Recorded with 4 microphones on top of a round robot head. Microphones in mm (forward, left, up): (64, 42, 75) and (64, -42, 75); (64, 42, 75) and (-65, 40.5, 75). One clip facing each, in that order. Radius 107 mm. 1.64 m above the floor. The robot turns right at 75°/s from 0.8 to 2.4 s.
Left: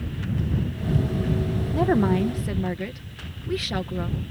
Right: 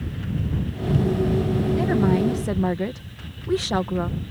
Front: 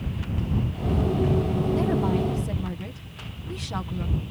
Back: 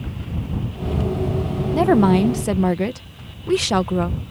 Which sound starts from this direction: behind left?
A woman speaking, at 1.7 s.